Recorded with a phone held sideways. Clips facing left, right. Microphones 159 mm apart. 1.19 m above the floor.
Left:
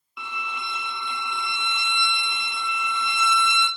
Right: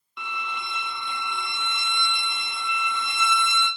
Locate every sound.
0.2 s a violin: 5° left (ahead or behind), 0.5 m